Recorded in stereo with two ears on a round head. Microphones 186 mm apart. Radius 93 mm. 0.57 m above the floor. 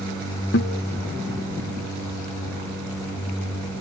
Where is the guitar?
55° left (ahead or behind).